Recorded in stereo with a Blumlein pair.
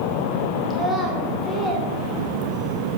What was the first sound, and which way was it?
A child speaking, 10° right.